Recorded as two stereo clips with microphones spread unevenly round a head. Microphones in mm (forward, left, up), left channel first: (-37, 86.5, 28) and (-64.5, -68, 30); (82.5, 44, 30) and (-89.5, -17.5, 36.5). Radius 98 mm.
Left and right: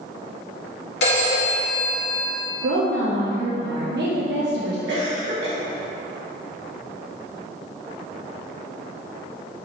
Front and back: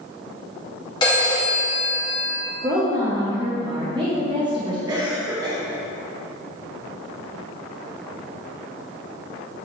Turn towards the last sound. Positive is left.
turn(degrees=-90)